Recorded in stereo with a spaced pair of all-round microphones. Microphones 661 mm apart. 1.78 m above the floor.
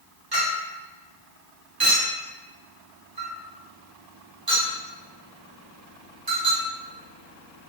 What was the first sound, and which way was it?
A clink, 35° right (ahead or behind).